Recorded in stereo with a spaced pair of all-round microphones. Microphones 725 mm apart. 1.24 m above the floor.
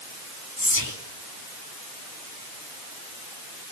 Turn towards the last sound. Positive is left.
turn(degrees=30)  # may be behind; listen again after turning